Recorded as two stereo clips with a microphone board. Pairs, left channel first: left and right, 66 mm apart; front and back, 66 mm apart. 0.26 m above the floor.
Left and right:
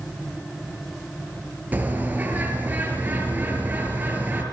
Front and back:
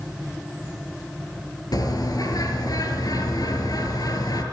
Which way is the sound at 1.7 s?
25° right.